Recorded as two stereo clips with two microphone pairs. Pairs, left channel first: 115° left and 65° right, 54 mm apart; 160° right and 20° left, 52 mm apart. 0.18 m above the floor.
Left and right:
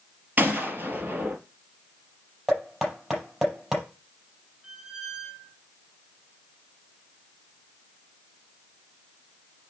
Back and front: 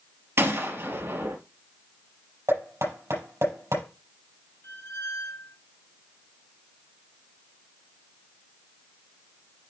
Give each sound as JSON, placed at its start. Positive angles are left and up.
{"t": 0.4, "sound": "a gunshot", "azimuth_deg": -10, "distance_m": 3.0}
{"t": 2.5, "sound": "knocking", "azimuth_deg": 15, "distance_m": 5.0}
{"t": 4.6, "sound": "a squeak", "azimuth_deg": -145, "distance_m": 1.4}